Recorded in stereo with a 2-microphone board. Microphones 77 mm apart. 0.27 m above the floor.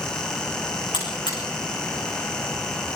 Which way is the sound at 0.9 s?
85° left.